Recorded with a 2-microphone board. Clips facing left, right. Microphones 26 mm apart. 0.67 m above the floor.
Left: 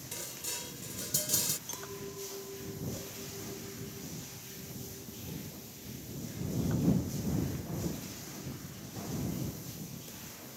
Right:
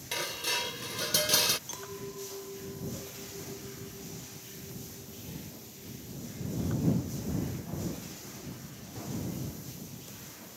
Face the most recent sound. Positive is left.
turn(degrees=-10)  # may be behind; listen again after turning